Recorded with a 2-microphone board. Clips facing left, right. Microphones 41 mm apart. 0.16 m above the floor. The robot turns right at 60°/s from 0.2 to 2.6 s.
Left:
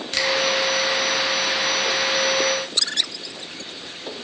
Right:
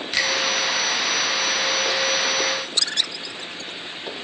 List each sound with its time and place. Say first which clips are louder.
0.1 s a finger snap: even; 10° right (ahead or behind), 1.4 m